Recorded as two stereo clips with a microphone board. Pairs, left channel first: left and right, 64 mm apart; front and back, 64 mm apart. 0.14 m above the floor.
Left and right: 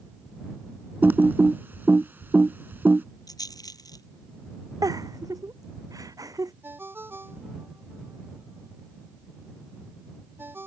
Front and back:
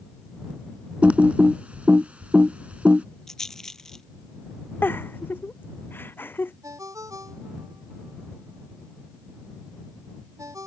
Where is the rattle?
80° left.